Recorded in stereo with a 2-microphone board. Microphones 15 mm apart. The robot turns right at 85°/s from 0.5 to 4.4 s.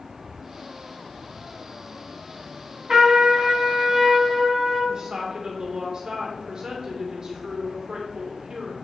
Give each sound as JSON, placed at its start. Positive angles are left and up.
{"t": 2.9, "sound": "a trumpet", "azimuth_deg": -135, "distance_m": 2.5}
{"t": 4.9, "sound": "a woman speaking", "side_deg": -45, "distance_m": 2.0}